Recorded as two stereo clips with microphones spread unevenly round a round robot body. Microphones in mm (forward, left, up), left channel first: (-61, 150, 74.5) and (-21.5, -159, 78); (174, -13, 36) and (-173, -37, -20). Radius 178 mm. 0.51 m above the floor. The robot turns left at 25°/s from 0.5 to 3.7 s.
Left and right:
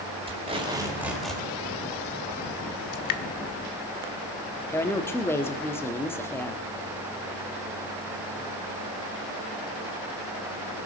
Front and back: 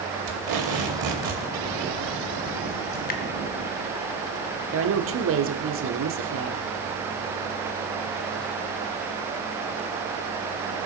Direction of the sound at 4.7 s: 175° left.